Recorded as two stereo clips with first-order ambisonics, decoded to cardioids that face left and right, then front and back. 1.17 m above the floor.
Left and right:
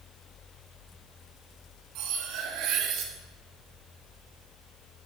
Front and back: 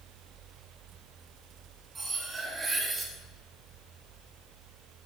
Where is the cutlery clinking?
110° right, 0.9 m.